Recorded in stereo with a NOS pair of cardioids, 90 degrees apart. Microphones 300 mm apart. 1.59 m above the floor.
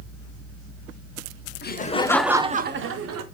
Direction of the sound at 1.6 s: 35° left.